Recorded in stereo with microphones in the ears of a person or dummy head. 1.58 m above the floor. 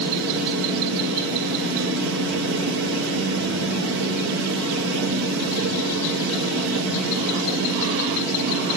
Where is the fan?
60° right (ahead or behind), 5 m.